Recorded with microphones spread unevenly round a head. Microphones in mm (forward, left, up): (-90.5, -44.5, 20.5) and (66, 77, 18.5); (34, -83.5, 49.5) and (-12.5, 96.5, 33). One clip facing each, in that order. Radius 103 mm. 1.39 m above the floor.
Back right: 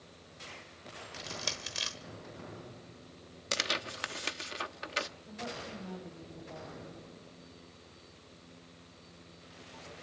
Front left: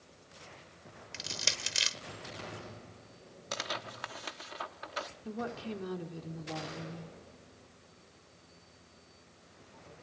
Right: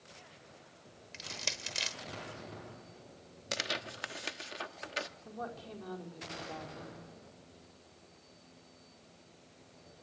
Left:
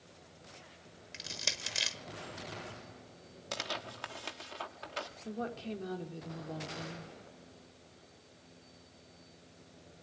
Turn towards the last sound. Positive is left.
turn(degrees=40)